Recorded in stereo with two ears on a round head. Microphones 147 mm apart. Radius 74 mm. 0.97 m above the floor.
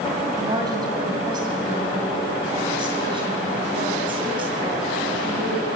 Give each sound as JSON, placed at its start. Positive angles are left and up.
{"t": 0.4, "sound": "a woman speaking", "side_deg": -25, "distance_m": 5.5}